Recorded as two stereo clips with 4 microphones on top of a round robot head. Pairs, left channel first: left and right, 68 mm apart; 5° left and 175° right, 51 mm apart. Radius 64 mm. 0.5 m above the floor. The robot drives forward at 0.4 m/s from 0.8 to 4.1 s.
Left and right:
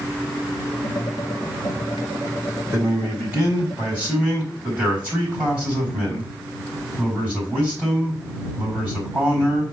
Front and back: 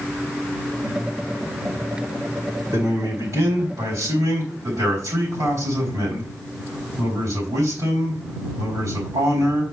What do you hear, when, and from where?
2.7 s a man speaking: 155° right, 4 m; by 9.7 s 160° right, 4.5 m